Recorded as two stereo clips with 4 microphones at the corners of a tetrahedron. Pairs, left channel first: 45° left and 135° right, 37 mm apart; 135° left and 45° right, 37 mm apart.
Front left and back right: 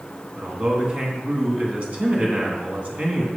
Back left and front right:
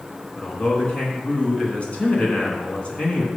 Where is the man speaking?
175° right, 2.5 m.